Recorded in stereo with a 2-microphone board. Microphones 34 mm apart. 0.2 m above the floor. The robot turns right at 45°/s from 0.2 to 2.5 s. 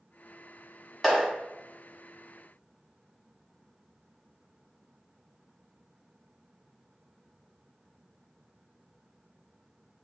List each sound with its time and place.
1.0 s a clap: centre (ahead or behind), 1.2 m; by 1.3 s 5° right (ahead or behind), 1.2 m